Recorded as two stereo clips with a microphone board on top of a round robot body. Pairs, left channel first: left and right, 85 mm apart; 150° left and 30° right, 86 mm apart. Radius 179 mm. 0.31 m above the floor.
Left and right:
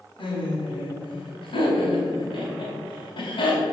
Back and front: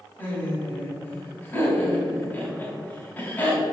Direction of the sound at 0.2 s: 75° left.